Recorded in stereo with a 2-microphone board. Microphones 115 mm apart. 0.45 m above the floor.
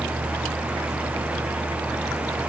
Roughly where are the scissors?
I don't hear scissors.